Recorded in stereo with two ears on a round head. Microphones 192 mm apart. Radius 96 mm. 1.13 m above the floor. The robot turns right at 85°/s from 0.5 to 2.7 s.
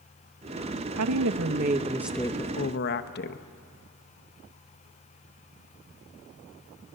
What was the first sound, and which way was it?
A woman speaking, 100° right.